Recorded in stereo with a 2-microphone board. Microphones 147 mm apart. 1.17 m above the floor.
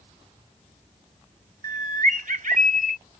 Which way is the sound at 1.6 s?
65° right (ahead or behind).